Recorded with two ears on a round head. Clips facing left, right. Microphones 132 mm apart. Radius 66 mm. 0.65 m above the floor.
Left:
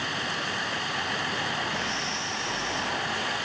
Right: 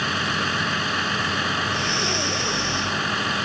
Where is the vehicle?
70° right (ahead or behind).